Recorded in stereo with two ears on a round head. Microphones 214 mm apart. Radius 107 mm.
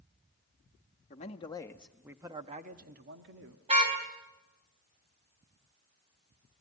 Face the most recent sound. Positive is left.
turn(degrees=-25)  # may be behind; listen again after turning